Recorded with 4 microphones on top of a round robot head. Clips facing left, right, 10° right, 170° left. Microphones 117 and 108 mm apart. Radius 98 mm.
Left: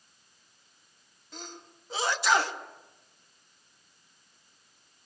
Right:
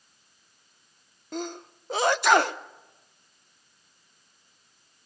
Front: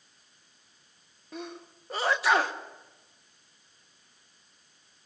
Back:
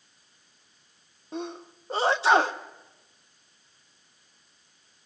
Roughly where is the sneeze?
Behind right.